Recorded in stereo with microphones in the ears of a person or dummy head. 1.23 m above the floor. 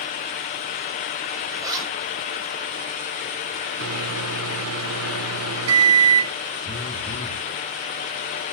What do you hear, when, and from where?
1.5 s a zipper: 25° right (ahead or behind), 2.5 m
3.8 s a microwave: 75° right (ahead or behind), 0.7 m
6.6 s a phone buzzing: 5° left (ahead or behind), 3.5 m